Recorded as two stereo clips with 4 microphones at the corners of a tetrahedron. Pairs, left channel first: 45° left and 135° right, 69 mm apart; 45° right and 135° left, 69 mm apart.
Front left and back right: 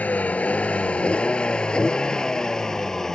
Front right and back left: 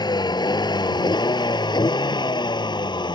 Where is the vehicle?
25° right; by 3.1 s 40° right.